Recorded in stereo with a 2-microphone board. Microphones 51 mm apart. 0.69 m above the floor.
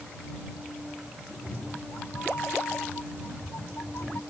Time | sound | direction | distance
1.3 | a cat meowing | 60° left (ahead or behind) | ?